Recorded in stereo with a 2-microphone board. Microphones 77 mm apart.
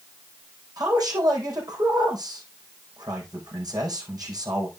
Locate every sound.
0.8 s a man speaking: 60° right (ahead or behind), 4.5 m